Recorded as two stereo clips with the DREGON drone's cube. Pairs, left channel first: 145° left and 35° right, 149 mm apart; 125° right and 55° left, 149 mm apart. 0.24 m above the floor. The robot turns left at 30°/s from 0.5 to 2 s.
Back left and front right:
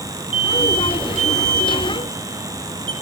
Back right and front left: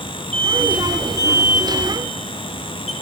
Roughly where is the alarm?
Ahead right.